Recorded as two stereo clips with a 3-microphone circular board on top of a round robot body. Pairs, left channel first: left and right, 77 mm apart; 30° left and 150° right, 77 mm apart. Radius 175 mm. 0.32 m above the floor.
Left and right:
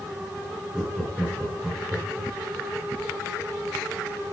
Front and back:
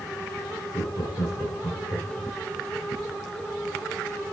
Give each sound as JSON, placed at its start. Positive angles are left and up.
{"t": 0.7, "sound": "laughter", "azimuth_deg": -10, "distance_m": 7.5}